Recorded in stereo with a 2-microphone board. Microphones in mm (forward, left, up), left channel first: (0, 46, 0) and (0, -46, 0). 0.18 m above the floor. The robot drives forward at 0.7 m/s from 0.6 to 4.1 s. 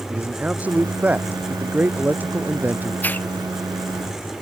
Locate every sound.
0.1 s a man speaking: 15° right (ahead or behind); by 2.9 s 20° right (ahead or behind)
3.0 s a hiss: 20° left (ahead or behind)